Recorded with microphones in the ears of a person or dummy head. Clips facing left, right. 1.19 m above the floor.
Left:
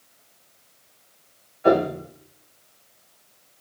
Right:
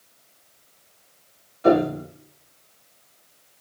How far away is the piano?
About 1.6 m.